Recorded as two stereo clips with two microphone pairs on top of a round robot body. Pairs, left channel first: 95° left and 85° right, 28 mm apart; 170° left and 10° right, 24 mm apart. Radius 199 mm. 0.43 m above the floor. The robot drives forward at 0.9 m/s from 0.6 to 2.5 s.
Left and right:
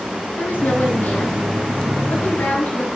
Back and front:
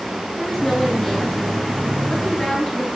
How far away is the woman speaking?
About 8 m.